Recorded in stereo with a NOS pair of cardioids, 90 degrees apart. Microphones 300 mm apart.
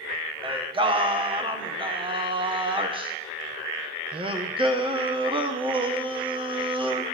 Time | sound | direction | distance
0.4 | singing | 15° right | 1.7 m